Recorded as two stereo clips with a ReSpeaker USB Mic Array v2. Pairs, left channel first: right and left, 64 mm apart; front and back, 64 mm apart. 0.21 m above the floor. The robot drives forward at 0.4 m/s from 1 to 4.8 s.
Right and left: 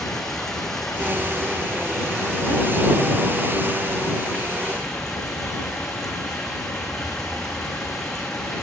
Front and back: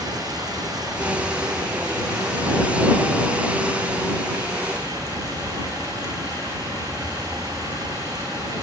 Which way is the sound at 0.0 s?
175° right.